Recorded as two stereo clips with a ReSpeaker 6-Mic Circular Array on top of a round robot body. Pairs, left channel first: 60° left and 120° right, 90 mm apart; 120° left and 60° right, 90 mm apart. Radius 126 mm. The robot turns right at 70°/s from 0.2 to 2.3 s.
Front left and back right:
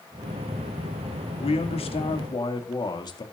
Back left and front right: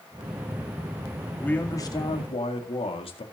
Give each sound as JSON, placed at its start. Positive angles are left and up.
{"t": 1.4, "sound": "a man speaking", "azimuth_deg": 40, "distance_m": 2.0}